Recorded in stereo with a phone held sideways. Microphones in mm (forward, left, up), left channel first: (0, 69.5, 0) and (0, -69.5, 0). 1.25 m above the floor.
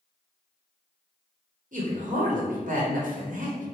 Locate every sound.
1.7 s a man speaking: 70° right (ahead or behind), 1.2 m